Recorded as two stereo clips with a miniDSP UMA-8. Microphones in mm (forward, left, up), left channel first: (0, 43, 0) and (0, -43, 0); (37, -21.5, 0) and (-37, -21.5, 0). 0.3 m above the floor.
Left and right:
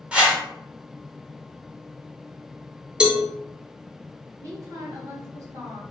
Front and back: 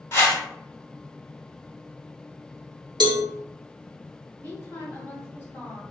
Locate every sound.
0.1 s a whoosh: 25° right, 1.2 m
3.0 s a cowbell: 170° right, 0.5 m
4.4 s a woman speaking: 60° right, 1.8 m